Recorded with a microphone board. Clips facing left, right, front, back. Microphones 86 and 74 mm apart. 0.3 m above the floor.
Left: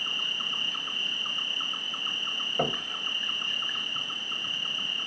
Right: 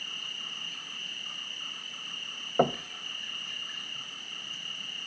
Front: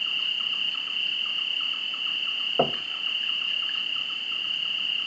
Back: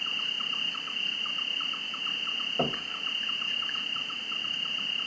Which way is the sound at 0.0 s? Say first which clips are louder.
Left 8 dB, front 3 dB; 110° left.